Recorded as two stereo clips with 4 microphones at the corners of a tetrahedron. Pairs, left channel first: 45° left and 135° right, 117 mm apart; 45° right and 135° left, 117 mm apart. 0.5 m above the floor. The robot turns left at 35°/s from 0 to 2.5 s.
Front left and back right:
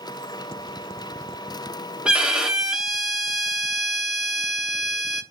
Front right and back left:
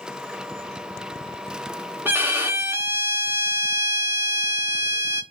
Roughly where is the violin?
Behind.